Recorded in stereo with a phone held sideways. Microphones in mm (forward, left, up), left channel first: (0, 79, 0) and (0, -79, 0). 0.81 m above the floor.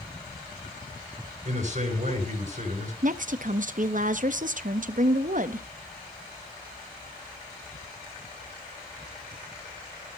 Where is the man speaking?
50° right (ahead or behind), 4 m.